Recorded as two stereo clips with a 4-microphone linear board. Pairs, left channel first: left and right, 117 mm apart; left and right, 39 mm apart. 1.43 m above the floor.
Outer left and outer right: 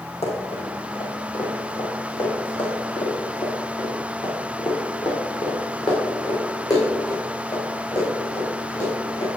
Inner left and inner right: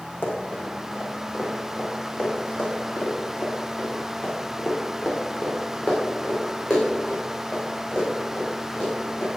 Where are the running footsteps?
55° left (ahead or behind), 4.5 m; by 9.3 s 30° left (ahead or behind), 7.5 m.